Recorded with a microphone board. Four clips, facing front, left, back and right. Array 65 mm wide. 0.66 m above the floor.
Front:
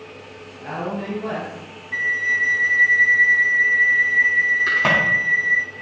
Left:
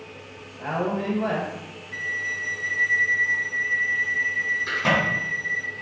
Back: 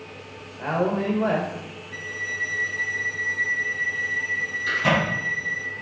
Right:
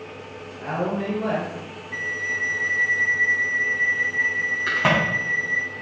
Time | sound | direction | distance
0.6 | a woman speaking | 175° left | 2.0 m
1.9 | a flute | 15° right | 0.6 m
4.7 | a crack | 50° right | 4.5 m